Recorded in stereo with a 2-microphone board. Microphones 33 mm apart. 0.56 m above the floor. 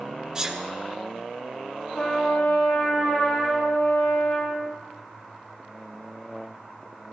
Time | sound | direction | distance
0.3 | a sneeze | 20° right (ahead or behind) | 1.5 m
1.9 | a trumpet | 55° left (ahead or behind) | 5 m